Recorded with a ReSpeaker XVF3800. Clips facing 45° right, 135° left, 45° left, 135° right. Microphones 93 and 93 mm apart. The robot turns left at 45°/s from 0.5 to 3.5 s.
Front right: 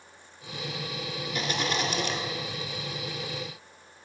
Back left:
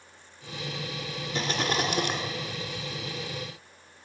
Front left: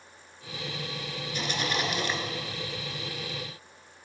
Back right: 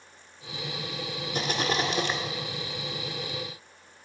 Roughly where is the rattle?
Behind.